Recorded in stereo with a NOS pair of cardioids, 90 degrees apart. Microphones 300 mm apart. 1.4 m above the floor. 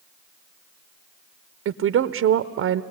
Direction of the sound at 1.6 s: 50° right.